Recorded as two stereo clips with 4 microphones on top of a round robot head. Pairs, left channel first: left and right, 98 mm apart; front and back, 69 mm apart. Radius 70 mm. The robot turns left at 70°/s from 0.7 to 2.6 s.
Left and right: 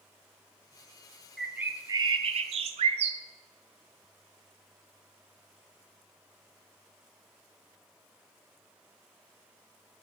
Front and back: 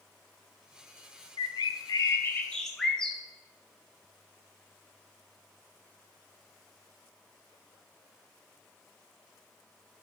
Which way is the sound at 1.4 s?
Straight ahead.